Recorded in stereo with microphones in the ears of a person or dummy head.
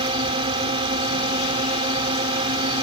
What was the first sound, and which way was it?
A drone, 30° right (ahead or behind).